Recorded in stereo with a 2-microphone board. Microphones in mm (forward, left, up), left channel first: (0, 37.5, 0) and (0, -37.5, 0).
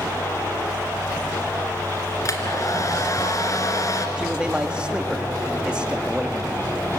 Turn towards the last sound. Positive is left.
turn(degrees=-15)  # may be behind; listen again after turning